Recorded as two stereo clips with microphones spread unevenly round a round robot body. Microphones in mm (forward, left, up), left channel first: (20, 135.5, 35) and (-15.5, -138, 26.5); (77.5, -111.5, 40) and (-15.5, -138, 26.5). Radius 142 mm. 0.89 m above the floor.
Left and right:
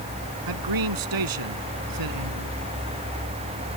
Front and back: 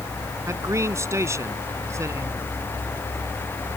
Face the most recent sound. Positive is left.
turn(degrees=-105)